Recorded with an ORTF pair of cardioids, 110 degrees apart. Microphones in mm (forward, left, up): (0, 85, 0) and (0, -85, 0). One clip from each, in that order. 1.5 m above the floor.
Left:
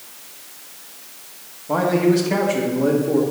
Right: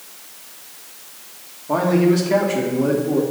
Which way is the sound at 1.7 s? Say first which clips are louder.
Even; 5° right.